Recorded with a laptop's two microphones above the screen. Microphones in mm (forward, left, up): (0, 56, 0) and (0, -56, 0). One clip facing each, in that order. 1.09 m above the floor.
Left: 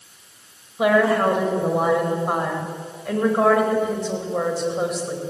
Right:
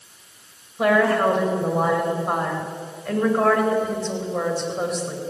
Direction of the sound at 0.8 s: 5° left (ahead or behind).